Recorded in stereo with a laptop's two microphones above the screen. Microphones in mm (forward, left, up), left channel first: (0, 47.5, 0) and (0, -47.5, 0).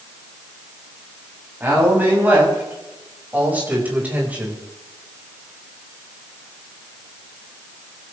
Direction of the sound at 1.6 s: 20° right (ahead or behind).